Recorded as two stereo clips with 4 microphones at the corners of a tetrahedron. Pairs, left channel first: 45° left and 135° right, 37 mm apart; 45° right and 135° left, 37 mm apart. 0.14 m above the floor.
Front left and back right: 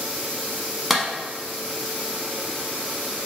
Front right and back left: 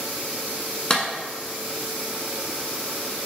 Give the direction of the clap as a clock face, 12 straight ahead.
2 o'clock.